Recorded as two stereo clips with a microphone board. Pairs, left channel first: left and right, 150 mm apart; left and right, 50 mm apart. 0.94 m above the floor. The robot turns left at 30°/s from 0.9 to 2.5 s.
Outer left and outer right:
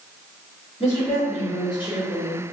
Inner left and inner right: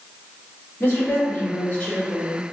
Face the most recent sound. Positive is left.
turn(degrees=25)